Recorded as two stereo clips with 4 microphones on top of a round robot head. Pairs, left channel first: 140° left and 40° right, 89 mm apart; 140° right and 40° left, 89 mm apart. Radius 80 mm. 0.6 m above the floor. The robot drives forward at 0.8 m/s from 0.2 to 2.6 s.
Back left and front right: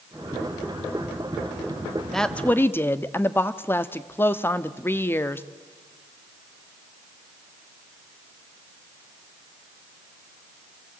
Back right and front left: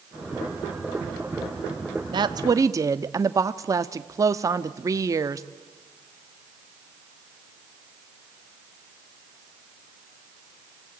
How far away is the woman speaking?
About 1.0 m.